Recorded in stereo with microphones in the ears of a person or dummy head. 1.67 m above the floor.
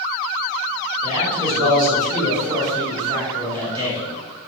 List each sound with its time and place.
1.0 s a man speaking: 25° right (ahead or behind), 1.1 m